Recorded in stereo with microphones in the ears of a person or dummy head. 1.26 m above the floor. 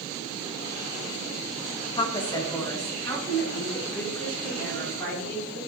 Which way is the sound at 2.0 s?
25° left (ahead or behind).